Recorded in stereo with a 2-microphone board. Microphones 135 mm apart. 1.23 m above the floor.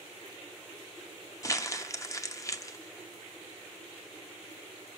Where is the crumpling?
25° left (ahead or behind), 0.7 m.